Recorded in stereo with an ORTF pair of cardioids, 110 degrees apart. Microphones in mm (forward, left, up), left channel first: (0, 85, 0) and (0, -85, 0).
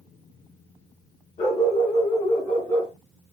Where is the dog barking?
40° left, 6 m; by 2.9 s 25° left, 6 m.